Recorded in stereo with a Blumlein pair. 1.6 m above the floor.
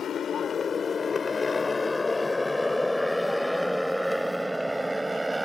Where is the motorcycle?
25° left; by 5.5 s 5° right.